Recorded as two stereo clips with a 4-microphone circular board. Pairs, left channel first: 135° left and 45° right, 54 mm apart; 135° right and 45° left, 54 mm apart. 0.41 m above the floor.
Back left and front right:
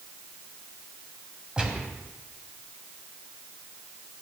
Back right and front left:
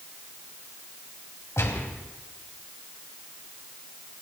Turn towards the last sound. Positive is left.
turn(degrees=-115)